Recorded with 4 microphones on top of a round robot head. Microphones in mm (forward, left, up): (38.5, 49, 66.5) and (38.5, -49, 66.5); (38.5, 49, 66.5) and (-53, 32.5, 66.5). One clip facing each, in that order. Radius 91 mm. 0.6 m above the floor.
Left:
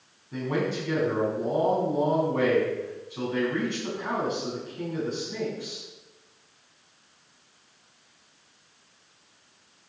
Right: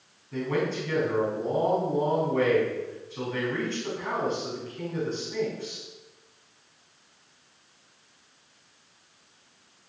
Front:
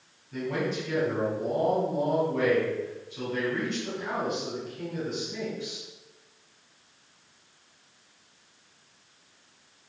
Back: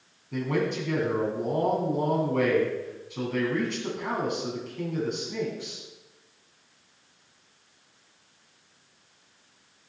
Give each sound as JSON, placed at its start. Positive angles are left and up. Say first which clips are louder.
{"t": 0.3, "sound": "a man speaking", "louder": "even, back 2 dB", "azimuth_deg": 165, "distance_m": 5.5}